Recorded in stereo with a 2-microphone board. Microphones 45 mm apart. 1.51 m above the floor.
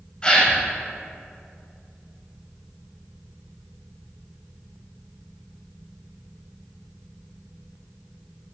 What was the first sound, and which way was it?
A gasp, 20° left (ahead or behind).